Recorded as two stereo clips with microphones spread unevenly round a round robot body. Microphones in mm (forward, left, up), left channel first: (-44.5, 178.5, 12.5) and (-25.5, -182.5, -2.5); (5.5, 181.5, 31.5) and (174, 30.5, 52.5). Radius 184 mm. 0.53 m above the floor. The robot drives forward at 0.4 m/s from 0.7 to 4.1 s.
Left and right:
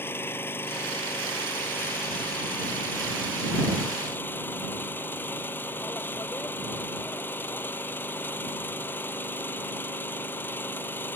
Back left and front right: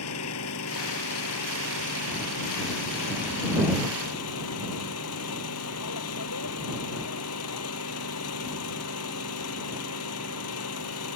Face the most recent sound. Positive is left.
turn(degrees=180)